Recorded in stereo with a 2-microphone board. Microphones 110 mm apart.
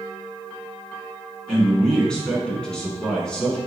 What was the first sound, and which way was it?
A man speaking, 5° left (ahead or behind).